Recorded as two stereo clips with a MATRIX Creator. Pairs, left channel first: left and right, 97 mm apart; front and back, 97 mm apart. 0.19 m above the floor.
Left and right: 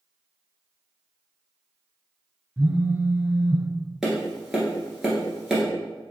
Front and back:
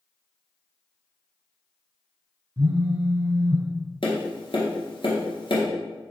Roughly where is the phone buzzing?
Behind.